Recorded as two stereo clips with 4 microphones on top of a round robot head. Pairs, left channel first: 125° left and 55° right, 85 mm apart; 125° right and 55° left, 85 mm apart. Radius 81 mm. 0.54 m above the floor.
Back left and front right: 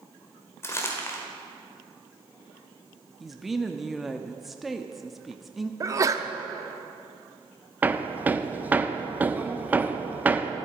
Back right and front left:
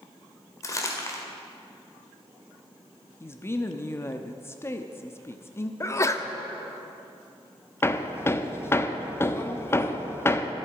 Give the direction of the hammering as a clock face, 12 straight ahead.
3 o'clock.